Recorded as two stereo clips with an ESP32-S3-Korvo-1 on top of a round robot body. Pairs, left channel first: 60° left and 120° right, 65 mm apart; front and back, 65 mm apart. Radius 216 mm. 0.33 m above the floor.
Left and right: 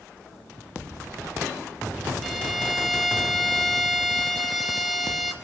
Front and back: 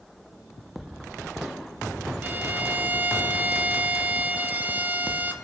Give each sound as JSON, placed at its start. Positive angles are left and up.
{"t": 2.2, "sound": "a violin", "azimuth_deg": 145, "distance_m": 1.6}